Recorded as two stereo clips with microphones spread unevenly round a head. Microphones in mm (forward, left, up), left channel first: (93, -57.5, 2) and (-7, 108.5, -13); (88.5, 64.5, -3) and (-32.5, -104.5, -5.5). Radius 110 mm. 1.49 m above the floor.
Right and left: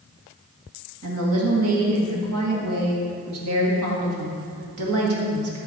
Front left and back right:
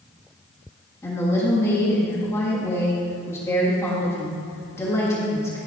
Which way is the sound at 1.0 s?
130° left.